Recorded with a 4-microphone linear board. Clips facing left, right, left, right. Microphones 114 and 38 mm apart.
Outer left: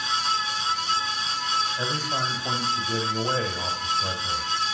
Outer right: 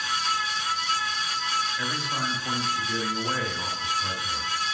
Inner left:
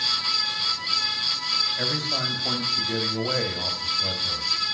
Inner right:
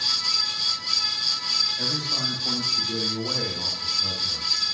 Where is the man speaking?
35° left (ahead or behind), 1.5 m.